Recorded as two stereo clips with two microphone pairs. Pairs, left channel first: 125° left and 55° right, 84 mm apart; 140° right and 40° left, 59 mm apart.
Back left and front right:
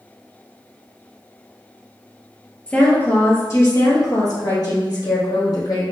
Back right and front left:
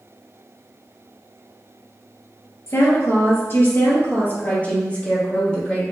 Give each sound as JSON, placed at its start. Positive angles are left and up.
{"t": 2.7, "sound": "a woman speaking", "azimuth_deg": -160, "distance_m": 1.8}